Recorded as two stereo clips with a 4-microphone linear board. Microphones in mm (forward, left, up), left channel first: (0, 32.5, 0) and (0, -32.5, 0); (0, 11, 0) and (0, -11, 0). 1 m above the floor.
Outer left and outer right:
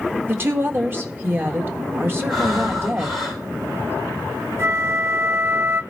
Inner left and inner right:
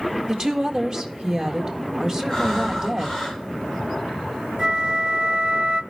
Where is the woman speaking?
35° right (ahead or behind), 1.7 m.